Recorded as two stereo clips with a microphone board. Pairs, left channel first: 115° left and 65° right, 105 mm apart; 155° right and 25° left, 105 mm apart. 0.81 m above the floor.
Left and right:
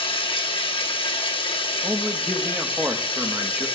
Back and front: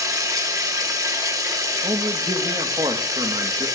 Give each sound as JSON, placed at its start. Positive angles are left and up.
{"t": 0.0, "sound": "running water", "azimuth_deg": 80, "distance_m": 1.3}
{"t": 1.8, "sound": "a man speaking", "azimuth_deg": 0, "distance_m": 1.0}